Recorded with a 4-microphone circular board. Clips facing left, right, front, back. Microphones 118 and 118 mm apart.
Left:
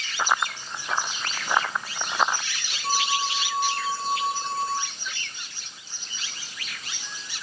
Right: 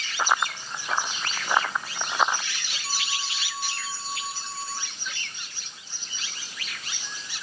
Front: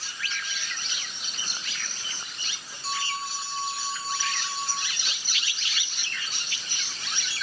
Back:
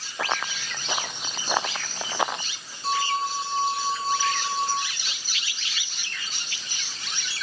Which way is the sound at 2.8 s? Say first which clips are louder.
Left 10 dB, back 7 dB; 130° left.